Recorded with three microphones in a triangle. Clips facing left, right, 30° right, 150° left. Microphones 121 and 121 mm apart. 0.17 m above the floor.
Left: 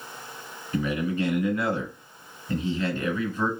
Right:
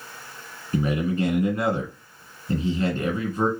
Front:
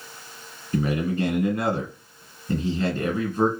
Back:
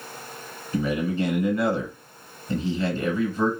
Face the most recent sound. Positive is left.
turn(degrees=-55)